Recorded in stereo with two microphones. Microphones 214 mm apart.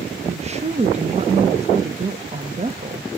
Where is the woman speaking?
30° right (ahead or behind), 0.8 m.